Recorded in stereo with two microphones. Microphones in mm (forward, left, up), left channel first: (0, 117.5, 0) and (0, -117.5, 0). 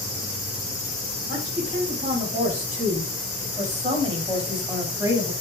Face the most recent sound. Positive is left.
turn(degrees=-10)  # may be behind; listen again after turning